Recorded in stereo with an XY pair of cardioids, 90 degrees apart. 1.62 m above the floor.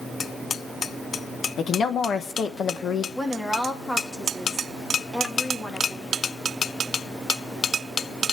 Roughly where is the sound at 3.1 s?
Ahead.